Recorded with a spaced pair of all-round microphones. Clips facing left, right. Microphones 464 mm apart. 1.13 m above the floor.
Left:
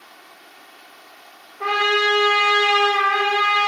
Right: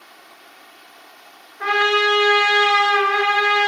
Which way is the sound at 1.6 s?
35° right (ahead or behind).